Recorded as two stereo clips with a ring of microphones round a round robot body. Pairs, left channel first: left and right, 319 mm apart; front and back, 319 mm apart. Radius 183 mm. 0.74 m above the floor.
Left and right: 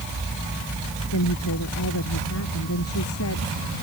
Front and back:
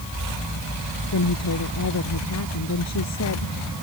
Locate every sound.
1.1 s a woman speaking: 40° left